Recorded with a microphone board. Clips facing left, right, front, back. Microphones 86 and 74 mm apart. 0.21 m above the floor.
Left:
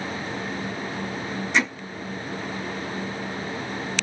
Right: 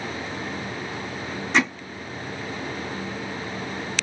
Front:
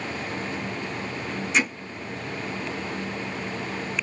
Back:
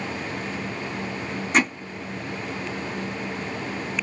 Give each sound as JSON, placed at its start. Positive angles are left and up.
{"t": 1.5, "sound": "hammering", "azimuth_deg": -145, "distance_m": 3.5}